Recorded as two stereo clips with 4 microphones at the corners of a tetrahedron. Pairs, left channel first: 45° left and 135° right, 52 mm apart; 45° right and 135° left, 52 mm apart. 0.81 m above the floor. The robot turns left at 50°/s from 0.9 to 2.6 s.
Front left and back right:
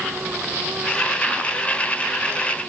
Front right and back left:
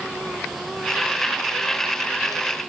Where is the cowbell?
No cowbell in this recording.